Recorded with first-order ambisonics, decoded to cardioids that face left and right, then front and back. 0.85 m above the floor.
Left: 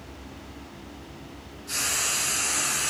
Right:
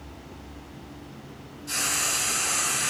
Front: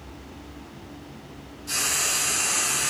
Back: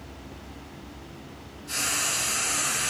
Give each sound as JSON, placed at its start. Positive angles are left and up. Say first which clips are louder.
{"t": 1.7, "sound": "frying", "louder": "even, front 2 dB", "azimuth_deg": -15, "distance_m": 0.9}